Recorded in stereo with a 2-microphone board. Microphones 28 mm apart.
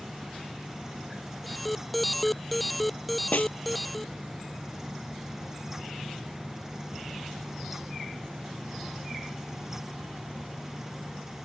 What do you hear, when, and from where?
1.4 s an alarm: centre (ahead or behind)
3.3 s a snare drum: 70° left (ahead or behind)